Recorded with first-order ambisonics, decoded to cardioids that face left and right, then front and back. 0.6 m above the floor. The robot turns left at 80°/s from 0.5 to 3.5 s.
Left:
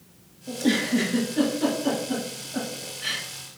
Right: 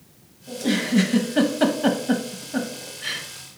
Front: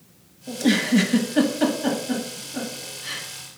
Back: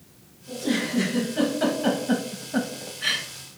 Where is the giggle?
15° left, 0.7 m; by 3.3 s 155° left, 0.7 m.